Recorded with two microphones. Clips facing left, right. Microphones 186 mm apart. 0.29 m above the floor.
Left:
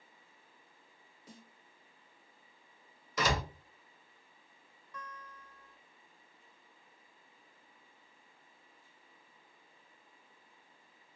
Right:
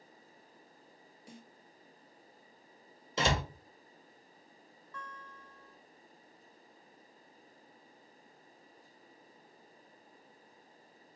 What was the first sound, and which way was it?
A snare drum, 10° right (ahead or behind).